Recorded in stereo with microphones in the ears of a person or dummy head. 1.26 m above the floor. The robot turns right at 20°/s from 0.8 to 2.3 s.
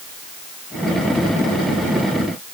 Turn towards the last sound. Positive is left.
No sound to turn to.